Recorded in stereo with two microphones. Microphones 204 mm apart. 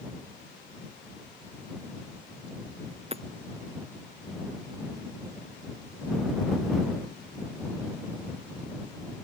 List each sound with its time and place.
3.1 s hammering: 30° right (ahead or behind)